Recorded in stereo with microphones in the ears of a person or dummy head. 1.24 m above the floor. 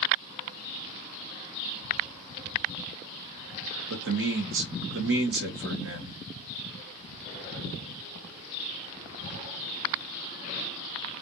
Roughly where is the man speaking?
Right.